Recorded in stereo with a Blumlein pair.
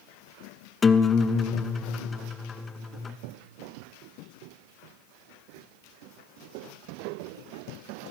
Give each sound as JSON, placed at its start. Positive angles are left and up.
{"t": 0.8, "sound": "a guitar", "azimuth_deg": 20, "distance_m": 0.9}